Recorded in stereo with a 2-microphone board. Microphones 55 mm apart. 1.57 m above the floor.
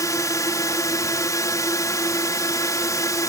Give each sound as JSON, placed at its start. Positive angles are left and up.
{"t": 0.0, "sound": "a drone", "side_deg": 80}